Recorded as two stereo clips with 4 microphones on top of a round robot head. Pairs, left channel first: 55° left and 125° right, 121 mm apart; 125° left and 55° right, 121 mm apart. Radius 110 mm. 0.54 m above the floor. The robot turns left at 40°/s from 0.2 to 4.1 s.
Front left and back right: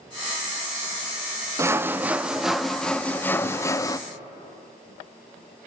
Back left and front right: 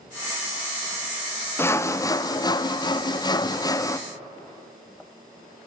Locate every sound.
1.6 s sawing: 175° right, 1.0 m; by 4.0 s 85° left, 1.0 m